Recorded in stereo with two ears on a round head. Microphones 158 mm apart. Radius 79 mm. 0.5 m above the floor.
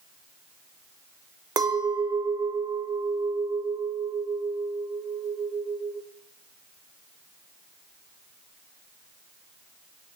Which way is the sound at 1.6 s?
20° right (ahead or behind).